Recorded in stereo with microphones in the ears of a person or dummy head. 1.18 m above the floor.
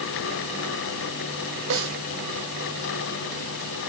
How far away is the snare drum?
About 3 m.